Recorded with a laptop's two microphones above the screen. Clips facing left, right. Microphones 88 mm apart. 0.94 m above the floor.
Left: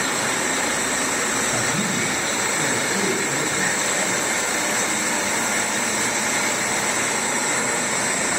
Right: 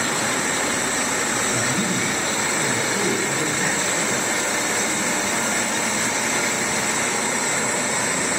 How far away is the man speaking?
About 5 m.